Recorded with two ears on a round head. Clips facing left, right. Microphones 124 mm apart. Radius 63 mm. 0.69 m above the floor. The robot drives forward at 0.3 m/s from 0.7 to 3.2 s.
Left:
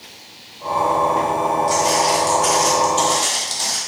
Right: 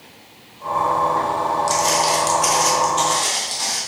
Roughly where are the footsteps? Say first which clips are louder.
Left 2 dB; right.